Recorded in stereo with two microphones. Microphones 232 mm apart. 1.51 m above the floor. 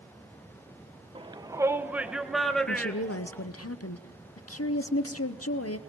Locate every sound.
1.1 s a shout: 20° right (ahead or behind), 1.1 m; by 3.5 s 10° left (ahead or behind), 2 m
2.7 s a woman speaking: 85° left, 0.8 m